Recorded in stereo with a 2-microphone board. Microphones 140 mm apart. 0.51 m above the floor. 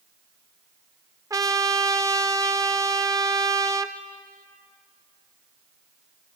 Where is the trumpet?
25° right (ahead or behind), 0.7 m.